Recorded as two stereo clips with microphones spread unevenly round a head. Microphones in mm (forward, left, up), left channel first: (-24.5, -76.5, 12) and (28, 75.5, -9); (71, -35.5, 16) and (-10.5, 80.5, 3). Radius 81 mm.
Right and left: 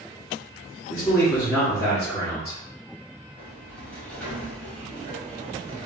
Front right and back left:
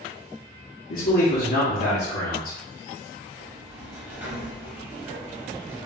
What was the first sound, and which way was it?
A man speaking, 35° right.